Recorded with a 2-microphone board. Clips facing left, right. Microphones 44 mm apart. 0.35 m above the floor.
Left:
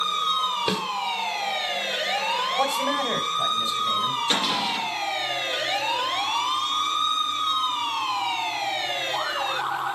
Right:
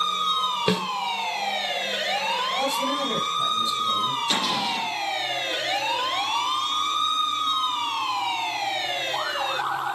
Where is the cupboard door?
20° left (ahead or behind), 6.5 m.